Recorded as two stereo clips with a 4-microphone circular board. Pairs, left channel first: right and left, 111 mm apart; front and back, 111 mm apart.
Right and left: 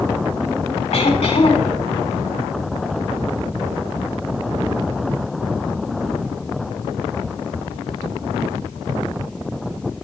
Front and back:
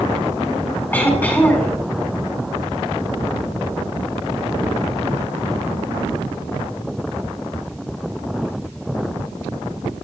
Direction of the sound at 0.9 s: 75° right.